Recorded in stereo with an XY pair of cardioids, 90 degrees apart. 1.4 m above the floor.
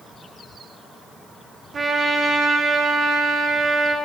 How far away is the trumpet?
About 2 m.